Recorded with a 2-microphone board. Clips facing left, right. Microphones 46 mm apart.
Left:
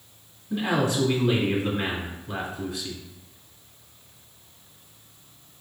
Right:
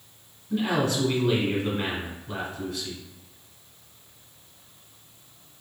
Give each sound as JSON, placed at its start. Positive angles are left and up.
{"t": 0.5, "sound": "a man speaking", "side_deg": 10, "distance_m": 1.1}